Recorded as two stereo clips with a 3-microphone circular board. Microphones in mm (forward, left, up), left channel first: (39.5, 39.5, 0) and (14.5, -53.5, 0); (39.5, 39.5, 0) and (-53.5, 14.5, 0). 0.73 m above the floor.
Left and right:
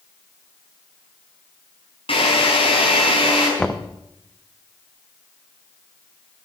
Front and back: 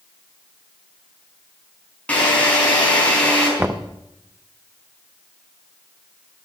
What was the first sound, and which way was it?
A drill, 90° left.